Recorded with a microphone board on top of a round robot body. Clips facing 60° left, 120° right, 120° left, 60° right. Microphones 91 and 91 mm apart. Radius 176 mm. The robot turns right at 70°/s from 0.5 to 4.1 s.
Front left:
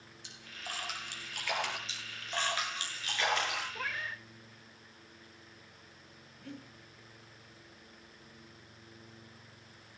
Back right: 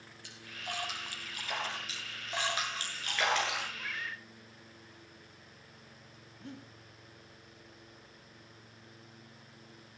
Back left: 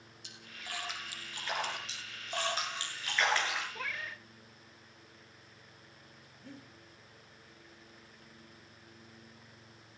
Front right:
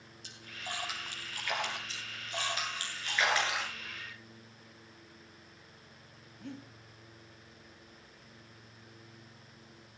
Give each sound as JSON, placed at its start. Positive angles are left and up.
{"t": 0.2, "sound": "a splash", "azimuth_deg": -10, "distance_m": 5.0}
{"t": 1.9, "sound": "a splash", "azimuth_deg": 120, "distance_m": 8.5}
{"t": 3.8, "sound": "a cat meowing", "azimuth_deg": 95, "distance_m": 0.7}
{"t": 6.4, "sound": "breathing", "azimuth_deg": -60, "distance_m": 5.0}